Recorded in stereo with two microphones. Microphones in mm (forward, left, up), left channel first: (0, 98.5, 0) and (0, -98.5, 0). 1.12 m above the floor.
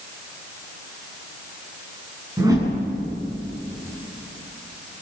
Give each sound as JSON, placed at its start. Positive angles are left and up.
{"t": 2.4, "sound": "a whoosh", "side_deg": -20, "distance_m": 7.5}